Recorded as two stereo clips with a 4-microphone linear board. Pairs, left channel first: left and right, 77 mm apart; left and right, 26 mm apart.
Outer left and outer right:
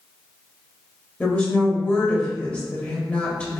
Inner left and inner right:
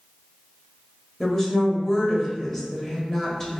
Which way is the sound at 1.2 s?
15° left (ahead or behind).